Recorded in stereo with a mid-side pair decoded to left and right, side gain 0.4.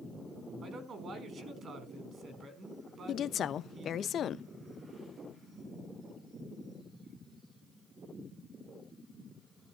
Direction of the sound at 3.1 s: 65° left.